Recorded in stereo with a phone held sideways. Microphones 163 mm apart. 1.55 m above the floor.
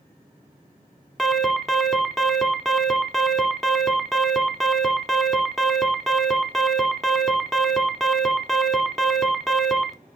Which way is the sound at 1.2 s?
Centre (ahead or behind).